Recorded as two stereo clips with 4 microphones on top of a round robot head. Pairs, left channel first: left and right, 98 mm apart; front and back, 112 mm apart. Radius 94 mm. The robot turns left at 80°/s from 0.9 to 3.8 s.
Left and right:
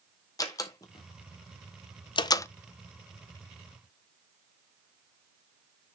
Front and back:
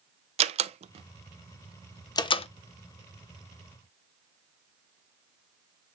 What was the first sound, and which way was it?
A door slam, 155° left.